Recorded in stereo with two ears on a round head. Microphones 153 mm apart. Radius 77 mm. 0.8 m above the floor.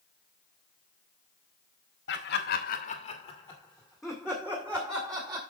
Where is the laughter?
75° left (ahead or behind), 1.8 m; by 5.4 s 20° right (ahead or behind), 3.5 m.